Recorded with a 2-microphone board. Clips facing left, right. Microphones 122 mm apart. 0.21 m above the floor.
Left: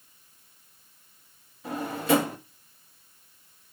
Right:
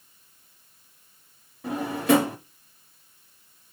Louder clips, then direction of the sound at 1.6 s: Right 3 dB; 65° right (ahead or behind).